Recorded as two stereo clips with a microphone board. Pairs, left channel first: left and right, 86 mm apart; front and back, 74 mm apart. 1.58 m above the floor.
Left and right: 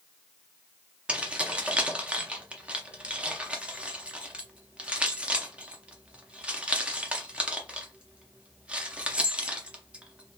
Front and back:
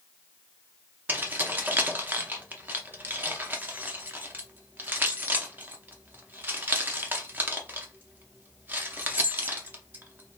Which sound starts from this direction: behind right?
Keys jangling, at 1.1 s.